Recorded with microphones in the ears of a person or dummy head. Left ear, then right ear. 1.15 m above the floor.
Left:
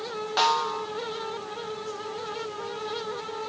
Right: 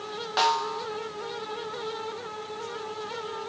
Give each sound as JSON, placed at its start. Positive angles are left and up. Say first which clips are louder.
{"t": 0.4, "sound": "a snare drum", "louder": "left 1 dB", "side_deg": 0, "distance_m": 1.3}